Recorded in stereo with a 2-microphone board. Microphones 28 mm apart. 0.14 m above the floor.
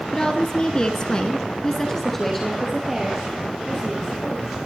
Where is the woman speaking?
30° left (ahead or behind), 2 m; by 4.6 s 5° right (ahead or behind), 5.5 m.